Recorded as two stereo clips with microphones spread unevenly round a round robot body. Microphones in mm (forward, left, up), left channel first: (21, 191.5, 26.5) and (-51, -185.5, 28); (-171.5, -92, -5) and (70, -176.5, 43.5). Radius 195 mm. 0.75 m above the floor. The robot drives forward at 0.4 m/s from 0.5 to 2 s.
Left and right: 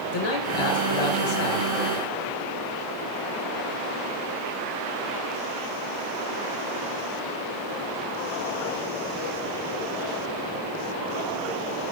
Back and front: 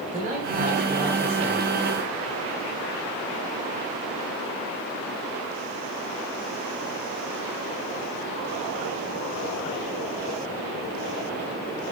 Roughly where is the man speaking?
Ahead left.